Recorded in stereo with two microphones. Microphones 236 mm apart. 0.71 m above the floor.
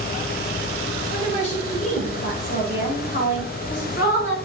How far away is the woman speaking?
About 3.5 m.